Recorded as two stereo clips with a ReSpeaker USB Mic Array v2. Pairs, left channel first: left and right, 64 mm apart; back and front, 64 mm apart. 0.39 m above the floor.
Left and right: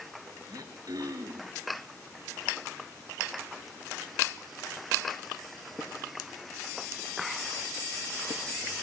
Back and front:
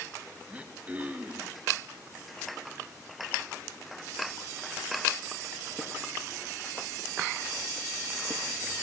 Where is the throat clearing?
70° right, 1.7 m.